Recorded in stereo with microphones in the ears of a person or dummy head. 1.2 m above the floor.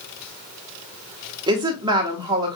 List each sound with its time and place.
1.5 s a woman speaking: 25° right (ahead or behind), 1.1 m